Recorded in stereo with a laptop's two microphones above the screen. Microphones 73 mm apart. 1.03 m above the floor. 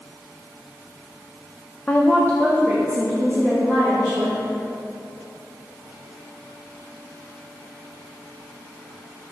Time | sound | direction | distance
1.9 | a woman speaking | 20° left (ahead or behind) | 0.6 m